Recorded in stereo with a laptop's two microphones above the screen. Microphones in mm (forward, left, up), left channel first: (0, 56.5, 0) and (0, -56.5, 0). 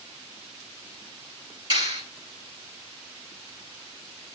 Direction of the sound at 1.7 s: 40° right (ahead or behind).